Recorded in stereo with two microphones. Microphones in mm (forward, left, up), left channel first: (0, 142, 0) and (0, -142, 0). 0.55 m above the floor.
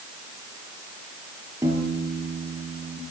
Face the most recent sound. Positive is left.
turn(degrees=-10)  # may be behind; listen again after turning